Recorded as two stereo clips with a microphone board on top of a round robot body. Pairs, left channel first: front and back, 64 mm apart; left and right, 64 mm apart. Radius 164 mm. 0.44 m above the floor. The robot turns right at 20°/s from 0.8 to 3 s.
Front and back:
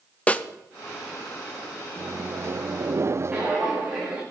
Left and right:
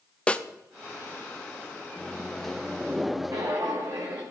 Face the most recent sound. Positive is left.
turn(degrees=-115)